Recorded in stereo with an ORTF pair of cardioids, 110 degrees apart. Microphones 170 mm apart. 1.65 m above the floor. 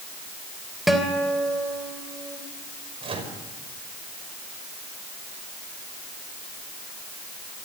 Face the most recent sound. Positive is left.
turn(degrees=-30)